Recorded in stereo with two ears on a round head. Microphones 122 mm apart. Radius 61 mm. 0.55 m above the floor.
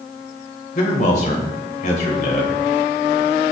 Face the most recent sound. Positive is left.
turn(degrees=60)  # may be behind; listen again after turning